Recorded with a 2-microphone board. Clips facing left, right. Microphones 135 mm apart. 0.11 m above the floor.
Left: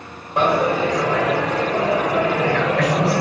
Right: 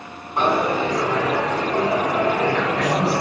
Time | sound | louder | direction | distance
0.4 | a dropped coin | left 2 dB | 85° left | 1.4 m